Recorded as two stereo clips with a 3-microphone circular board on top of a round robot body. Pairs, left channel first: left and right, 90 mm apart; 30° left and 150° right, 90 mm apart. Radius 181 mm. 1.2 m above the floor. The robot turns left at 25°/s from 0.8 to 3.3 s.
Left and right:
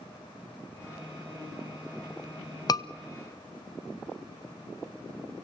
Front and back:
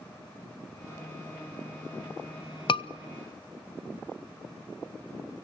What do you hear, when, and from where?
2.7 s a scream: 50° left, 1.0 m; by 2.9 s 45° left, 1.0 m